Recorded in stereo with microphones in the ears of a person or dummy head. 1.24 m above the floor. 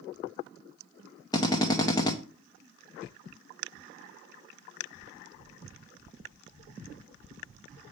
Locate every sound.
1.3 s a drill: 20° left (ahead or behind), 0.7 m